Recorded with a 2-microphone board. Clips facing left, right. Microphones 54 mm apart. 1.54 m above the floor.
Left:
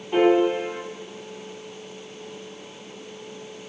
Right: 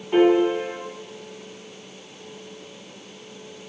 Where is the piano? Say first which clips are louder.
Right 1 dB; 10° right (ahead or behind), 1.8 m.